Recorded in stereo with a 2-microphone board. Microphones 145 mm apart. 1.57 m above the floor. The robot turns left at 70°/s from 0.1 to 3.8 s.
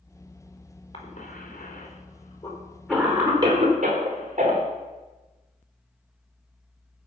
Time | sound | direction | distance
0.9 | a cough | 35° left (ahead or behind) | 4 m